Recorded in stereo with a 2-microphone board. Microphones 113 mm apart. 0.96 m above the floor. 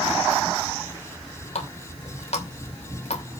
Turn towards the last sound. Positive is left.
turn(degrees=80)